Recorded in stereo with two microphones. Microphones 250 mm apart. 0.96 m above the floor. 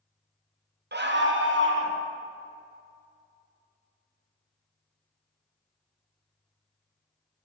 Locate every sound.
0.9 s a scream: 40° right (ahead or behind), 0.7 m; by 2.0 s 50° right (ahead or behind), 1.3 m